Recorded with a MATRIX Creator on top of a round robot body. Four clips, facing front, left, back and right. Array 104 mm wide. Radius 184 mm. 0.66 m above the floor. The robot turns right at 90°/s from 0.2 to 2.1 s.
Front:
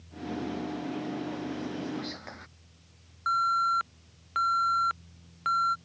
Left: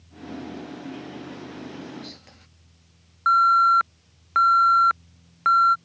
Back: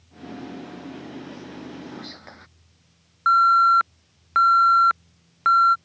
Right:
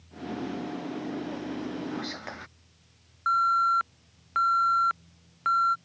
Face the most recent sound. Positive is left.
turn(degrees=145)